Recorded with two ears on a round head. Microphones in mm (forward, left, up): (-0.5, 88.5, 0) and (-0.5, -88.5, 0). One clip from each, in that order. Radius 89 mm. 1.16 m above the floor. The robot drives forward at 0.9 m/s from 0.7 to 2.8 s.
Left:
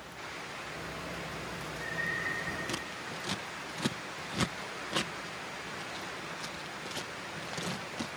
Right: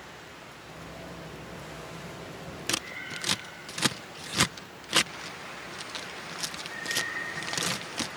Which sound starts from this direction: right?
Scissors, at 2.7 s.